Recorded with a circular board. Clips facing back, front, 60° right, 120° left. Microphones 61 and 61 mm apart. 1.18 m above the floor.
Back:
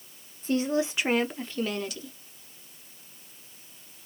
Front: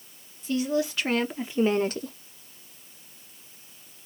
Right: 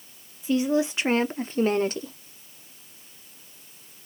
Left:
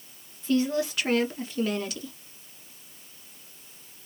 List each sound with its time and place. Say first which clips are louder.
0.4 s a woman speaking: even, right 2 dB; 135° right, 0.9 m; by 2.1 s 15° right, 0.7 m